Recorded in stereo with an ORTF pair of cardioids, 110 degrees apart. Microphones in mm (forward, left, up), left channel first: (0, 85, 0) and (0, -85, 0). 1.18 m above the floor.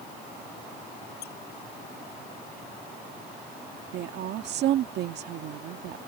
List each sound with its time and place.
1.2 s a squeak: 60° left
3.9 s a woman speaking: 70° right